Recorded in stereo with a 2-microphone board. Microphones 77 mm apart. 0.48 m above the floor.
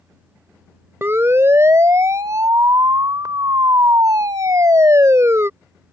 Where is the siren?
30° right (ahead or behind); by 5.5 s 35° right (ahead or behind).